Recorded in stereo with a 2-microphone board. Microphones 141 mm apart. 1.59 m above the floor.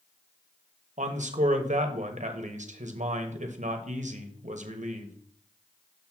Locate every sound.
1.0 s a man speaking: 60° right (ahead or behind), 1.0 m